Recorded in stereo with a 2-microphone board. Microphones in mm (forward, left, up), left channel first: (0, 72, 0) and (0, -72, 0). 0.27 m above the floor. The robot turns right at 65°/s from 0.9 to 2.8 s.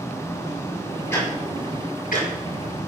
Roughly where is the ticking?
Centre.